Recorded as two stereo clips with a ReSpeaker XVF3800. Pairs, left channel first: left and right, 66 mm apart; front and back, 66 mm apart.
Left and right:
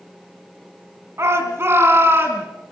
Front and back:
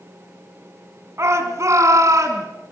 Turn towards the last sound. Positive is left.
turn(degrees=-145)